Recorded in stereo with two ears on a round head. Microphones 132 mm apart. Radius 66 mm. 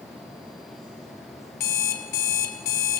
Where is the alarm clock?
65° left (ahead or behind), 2.5 m.